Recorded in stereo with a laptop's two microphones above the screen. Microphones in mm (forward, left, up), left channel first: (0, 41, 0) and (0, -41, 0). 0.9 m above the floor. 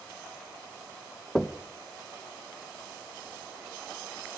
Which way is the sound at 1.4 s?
5° left (ahead or behind).